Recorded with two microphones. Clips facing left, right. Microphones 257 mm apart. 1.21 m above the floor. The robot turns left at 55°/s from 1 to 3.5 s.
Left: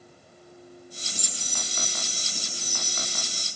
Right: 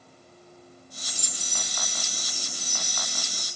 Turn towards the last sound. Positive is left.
turn(degrees=-110)